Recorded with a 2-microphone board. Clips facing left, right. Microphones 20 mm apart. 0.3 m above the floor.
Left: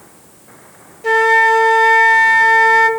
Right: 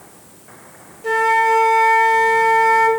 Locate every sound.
1.0 s a flute: 25° left (ahead or behind), 1.0 m